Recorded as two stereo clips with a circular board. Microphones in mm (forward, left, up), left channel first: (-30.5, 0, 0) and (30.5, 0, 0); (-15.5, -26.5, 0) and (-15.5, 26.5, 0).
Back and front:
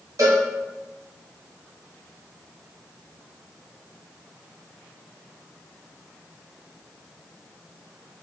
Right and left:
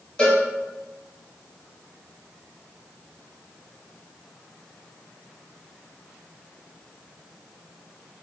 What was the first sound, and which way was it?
A cowbell, 20° right.